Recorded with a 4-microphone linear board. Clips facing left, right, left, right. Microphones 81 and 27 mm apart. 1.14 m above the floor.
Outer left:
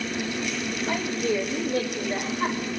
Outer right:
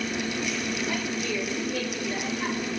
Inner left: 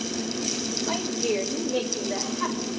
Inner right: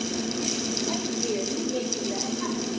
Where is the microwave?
I don't hear a microwave.